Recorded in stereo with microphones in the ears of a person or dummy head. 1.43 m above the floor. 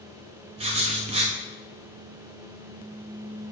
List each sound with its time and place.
0.6 s writing: 30° right (ahead or behind), 0.5 m